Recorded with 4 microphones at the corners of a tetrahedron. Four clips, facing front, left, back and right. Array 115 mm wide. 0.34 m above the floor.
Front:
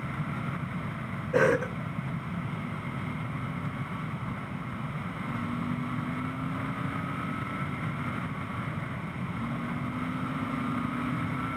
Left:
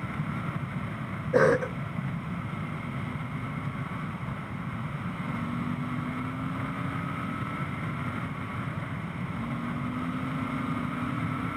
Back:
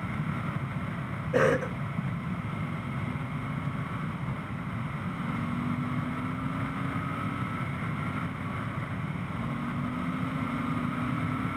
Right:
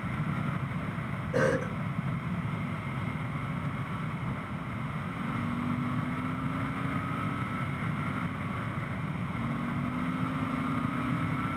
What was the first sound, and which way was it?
A cough, 90° left.